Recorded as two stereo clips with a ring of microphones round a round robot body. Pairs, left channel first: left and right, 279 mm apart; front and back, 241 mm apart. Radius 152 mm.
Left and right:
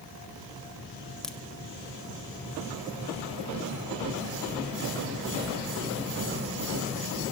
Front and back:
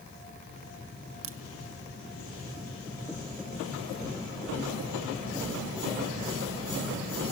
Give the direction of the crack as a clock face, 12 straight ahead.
6 o'clock.